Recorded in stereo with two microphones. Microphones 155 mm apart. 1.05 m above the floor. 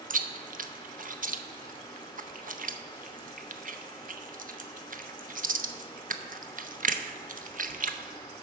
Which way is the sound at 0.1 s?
60° right (ahead or behind).